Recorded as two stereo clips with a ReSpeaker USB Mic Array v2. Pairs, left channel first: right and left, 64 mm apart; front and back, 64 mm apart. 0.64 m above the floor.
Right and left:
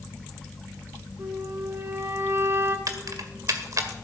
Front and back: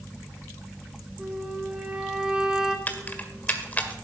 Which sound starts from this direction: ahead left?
Keys jangling, at 2.9 s.